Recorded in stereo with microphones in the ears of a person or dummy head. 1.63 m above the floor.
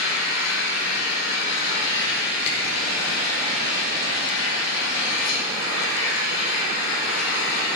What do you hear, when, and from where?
0.0 s an engine running: 75° left (ahead or behind), 6 m
2.5 s a camera shutter: 60° left (ahead or behind), 5 m